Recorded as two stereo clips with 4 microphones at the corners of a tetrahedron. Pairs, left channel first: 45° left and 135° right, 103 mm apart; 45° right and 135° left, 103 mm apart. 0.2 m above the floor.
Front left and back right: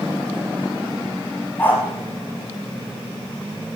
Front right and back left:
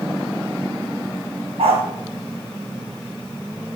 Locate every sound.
1.6 s a dog barking: 115° left, 2.5 m